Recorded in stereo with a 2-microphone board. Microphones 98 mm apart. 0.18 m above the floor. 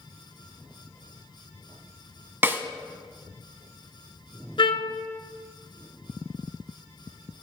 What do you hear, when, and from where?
2.4 s a snare drum: 25° right (ahead or behind), 1.0 m
4.6 s a trumpet: 55° left (ahead or behind), 0.8 m